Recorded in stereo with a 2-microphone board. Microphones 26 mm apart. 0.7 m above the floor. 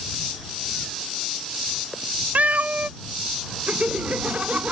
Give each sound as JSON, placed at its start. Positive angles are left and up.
{"t": 2.4, "sound": "a cat meowing", "side_deg": -70}
{"t": 3.7, "sound": "laughter", "side_deg": -55}